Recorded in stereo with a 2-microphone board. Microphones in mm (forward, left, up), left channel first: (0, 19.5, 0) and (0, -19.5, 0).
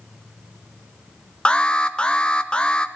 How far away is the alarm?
About 0.9 m.